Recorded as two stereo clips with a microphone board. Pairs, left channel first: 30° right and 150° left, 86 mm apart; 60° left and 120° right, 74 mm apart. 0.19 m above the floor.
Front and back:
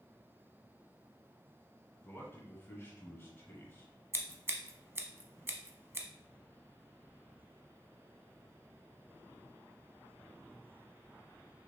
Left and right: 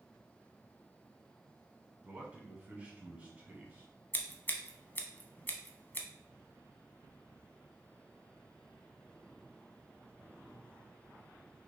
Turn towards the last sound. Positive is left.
turn(degrees=110)